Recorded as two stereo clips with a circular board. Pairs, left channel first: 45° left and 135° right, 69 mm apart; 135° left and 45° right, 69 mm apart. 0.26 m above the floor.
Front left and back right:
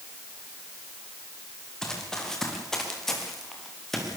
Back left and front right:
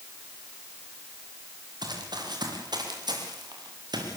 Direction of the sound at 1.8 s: 35° right.